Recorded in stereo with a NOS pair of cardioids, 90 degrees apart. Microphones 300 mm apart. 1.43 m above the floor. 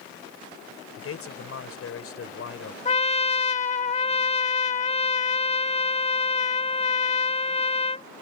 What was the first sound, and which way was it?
A man speaking, 50° left.